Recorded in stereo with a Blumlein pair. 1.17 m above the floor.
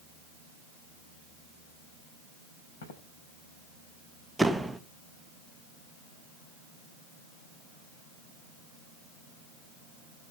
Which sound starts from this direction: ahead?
A door slam, at 4.4 s.